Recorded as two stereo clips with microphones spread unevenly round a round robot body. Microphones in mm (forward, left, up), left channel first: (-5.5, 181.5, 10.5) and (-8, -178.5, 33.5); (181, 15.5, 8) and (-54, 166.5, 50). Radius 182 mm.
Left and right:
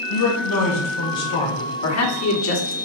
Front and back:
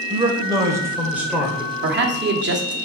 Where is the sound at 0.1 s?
70° left, 3 m; by 1.7 s 50° left, 2.5 m.